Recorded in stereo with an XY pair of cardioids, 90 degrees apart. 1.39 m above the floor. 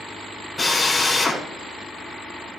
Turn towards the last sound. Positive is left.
turn(degrees=15)